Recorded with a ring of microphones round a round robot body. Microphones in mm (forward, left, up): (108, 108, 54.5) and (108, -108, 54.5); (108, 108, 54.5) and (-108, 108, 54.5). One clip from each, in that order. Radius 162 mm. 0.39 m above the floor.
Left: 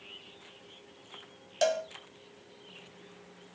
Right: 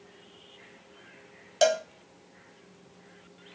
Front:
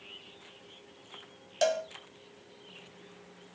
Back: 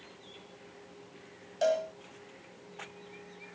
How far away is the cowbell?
About 1.8 m.